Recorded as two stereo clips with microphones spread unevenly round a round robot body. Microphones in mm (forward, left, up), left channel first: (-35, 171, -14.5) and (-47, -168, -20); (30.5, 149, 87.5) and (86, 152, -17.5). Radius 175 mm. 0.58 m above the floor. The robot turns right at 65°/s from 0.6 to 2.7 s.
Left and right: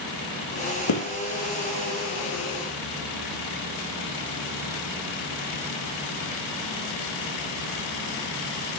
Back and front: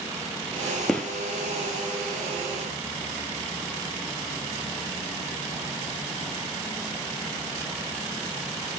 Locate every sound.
0.9 s a gunshot: 110° left, 4 m; by 1.1 s 125° left, 4 m